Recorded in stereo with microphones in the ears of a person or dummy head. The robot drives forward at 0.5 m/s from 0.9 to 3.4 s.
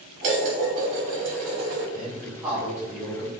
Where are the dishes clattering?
45° right (ahead or behind), 1.6 m; by 1.8 s 55° right (ahead or behind), 1.3 m.